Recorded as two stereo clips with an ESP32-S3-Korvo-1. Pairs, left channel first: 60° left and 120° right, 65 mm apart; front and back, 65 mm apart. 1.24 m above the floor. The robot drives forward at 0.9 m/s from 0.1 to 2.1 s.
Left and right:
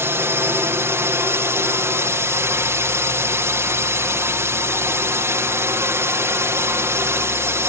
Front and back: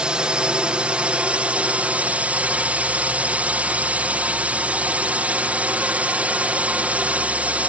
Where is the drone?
115° right; by 7.7 s 125° right.